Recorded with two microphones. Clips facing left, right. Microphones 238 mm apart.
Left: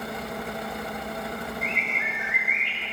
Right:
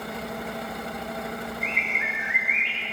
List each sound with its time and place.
1.6 s a bird: 30° right (ahead or behind), 5.5 m